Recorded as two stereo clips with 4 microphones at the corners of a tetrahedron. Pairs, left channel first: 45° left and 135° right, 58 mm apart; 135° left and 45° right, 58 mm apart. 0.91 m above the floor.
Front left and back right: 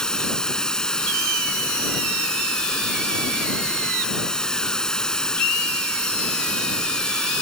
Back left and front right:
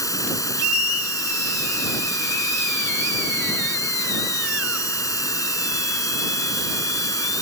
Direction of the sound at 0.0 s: 125° left.